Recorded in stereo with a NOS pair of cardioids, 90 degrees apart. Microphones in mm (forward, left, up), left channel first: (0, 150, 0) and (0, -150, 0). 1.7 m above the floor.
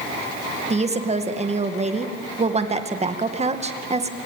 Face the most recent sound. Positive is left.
turn(degrees=-25)